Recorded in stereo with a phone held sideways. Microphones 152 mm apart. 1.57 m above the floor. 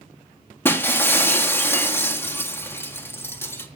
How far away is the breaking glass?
About 1.7 m.